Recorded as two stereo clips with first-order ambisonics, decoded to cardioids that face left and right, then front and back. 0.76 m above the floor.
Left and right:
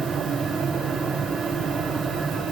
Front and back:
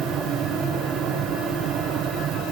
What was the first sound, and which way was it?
Only background noise.